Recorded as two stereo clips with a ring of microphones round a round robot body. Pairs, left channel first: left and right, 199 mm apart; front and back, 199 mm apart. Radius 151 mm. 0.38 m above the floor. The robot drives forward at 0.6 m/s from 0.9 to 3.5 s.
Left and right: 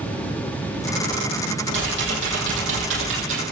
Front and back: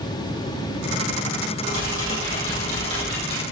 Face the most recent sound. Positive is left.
turn(degrees=-75)